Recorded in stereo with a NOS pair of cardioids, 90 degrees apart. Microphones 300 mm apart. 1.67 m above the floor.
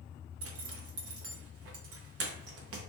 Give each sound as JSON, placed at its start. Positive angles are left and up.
{"t": 0.4, "sound": "a zipper", "azimuth_deg": -55, "distance_m": 0.7}